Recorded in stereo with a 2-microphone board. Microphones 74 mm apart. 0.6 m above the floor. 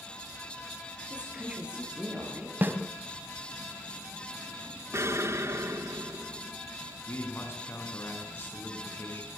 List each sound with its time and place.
1.1 s a woman speaking: 15° right (ahead or behind), 9.5 m
2.6 s a snare drum: 30° right (ahead or behind), 2.0 m
4.9 s an explosion: 40° right (ahead or behind), 1.4 m
7.1 s a man speaking: 35° left (ahead or behind), 5.5 m